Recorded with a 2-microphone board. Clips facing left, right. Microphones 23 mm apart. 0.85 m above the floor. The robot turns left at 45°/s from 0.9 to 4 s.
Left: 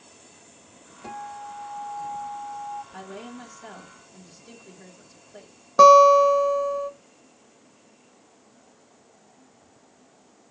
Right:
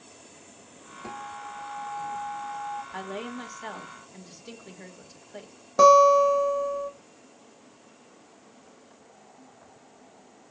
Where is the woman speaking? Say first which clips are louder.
Right 4 dB; 75° right, 1.2 m; by 5.5 s 125° right, 1.2 m.